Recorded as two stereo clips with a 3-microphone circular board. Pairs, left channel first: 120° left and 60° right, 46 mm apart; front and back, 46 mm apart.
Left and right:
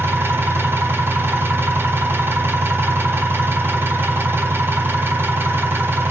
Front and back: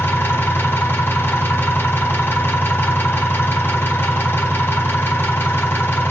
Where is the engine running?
30° right, 3 m.